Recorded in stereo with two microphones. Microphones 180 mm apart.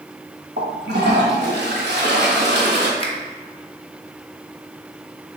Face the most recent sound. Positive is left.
turn(degrees=35)  # may be behind; listen again after turning